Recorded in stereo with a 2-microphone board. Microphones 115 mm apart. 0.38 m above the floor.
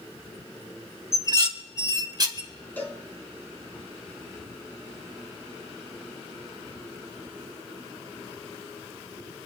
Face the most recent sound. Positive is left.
turn(degrees=15)  # may be behind; listen again after turning